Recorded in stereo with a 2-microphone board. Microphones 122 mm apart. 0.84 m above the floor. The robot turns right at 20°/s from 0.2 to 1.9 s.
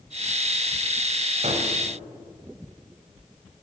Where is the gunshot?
60° right (ahead or behind), 0.9 m.